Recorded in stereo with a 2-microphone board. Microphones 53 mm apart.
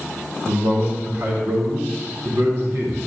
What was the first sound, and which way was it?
A man speaking, 70° right (ahead or behind).